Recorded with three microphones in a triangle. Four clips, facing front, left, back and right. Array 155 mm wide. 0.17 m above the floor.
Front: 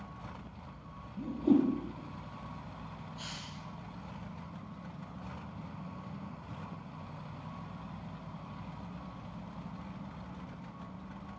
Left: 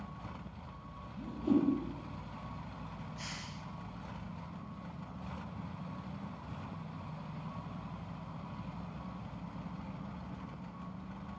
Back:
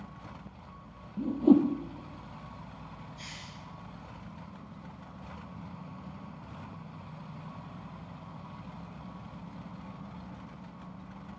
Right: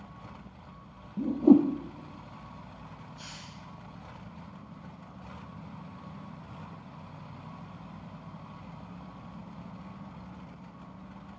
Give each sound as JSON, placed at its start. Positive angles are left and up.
{"t": 1.2, "sound": "a whoosh", "azimuth_deg": -115, "distance_m": 2.0}
{"t": 3.2, "sound": "a hiss", "azimuth_deg": 70, "distance_m": 5.0}